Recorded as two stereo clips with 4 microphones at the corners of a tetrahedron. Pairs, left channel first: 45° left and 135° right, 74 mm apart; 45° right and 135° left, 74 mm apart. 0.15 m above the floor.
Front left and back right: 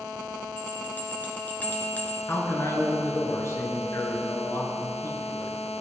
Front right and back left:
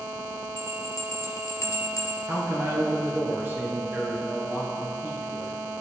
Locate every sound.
0.6 s a bell: 20° right, 2 m
2.3 s a man speaking: 80° left, 3 m